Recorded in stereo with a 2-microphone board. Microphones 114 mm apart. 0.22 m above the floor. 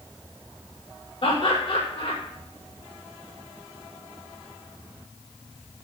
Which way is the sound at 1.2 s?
50° left (ahead or behind).